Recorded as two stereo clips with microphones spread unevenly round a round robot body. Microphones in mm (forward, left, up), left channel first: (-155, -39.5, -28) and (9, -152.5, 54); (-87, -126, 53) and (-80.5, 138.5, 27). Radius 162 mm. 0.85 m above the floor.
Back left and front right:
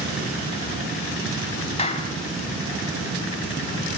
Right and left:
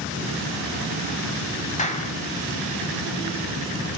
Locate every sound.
1.8 s a clap: 155° right, 5 m